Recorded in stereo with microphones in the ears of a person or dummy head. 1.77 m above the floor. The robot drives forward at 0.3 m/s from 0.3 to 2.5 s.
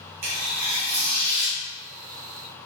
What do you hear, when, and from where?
0.2 s tearing paper: 50° right (ahead or behind), 0.8 m; by 1.6 s 35° right (ahead or behind), 1.0 m